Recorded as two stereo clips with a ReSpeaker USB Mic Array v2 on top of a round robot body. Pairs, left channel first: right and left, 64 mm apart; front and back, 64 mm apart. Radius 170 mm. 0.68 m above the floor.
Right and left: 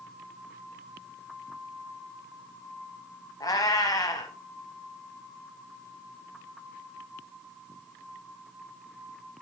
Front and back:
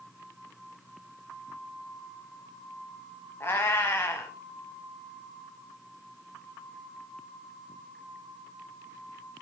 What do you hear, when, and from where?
3.4 s a cat meowing: 55° right, 0.7 m